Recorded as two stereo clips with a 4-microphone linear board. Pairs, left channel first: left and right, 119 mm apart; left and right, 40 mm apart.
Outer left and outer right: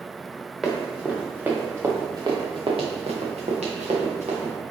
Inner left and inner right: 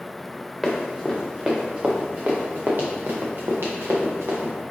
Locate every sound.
0.6 s running footsteps: centre (ahead or behind), 1.7 m; by 4.5 s 80° right, 1.9 m